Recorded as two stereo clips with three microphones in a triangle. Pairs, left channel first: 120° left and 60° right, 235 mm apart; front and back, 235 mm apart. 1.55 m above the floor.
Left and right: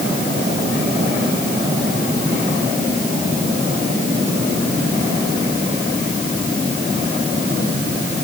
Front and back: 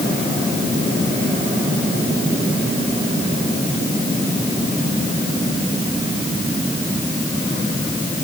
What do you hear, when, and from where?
Only background noise.